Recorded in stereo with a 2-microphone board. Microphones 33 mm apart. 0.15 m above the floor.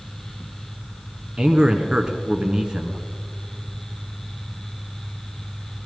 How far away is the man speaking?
About 1.3 m.